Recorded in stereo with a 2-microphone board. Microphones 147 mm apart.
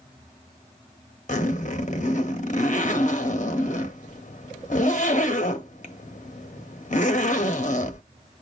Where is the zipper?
55° left (ahead or behind), 0.9 m.